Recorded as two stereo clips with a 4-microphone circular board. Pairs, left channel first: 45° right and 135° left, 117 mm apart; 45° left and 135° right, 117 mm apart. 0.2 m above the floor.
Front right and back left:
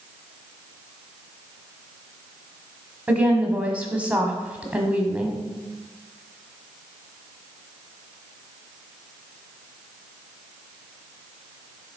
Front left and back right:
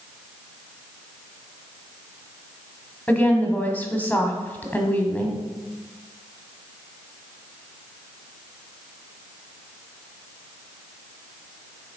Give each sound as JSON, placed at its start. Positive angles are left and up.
{"t": 3.1, "sound": "a woman speaking", "azimuth_deg": 85, "distance_m": 1.3}